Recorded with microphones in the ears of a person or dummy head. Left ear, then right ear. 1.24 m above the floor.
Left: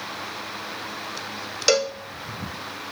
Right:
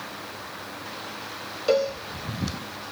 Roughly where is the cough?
No cough in this recording.